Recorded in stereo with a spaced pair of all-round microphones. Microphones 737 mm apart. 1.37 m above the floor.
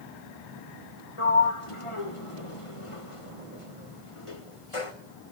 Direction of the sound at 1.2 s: 45° left (ahead or behind).